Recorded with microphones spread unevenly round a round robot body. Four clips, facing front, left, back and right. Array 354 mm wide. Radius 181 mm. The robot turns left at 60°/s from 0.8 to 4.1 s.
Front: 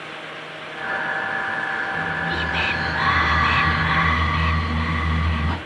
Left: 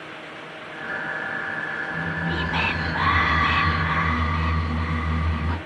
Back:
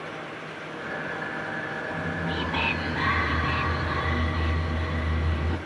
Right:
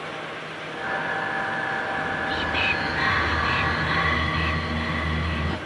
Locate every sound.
1.9 s whispering: 125° left, 3 m; by 5.6 s 5° right, 3 m